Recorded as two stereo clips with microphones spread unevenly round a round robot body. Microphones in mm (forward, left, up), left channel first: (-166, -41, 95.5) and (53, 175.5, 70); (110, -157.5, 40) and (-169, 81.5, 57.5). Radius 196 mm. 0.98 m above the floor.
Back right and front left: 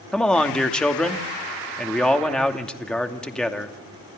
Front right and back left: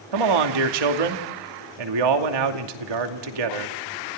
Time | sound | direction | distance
0.1 | a man speaking | 135° left | 2.5 m